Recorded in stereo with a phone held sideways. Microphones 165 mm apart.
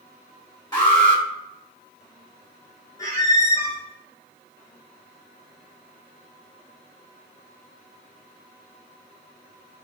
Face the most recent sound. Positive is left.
turn(degrees=20)  # may be behind; listen again after turning